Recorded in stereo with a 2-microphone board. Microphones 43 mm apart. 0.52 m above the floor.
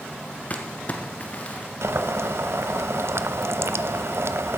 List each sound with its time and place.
0.5 s crumpling: 35° left (ahead or behind), 1.4 m
1.8 s boiling: 75° right (ahead or behind), 0.6 m